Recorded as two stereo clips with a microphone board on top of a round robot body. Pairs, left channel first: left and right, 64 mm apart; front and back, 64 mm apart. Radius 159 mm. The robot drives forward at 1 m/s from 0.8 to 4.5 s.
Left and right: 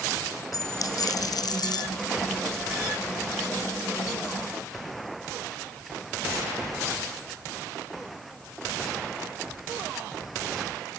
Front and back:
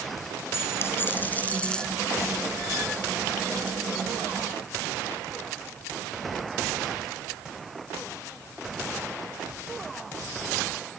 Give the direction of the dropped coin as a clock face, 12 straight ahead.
10 o'clock.